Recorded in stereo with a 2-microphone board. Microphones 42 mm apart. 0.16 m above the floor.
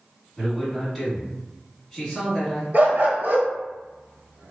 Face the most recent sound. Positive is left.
turn(degrees=-55)  # may be behind; listen again after turning